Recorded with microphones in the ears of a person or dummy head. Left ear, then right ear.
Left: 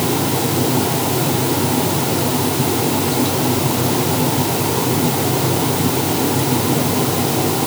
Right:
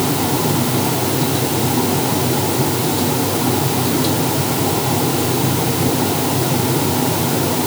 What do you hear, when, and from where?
Only background noise.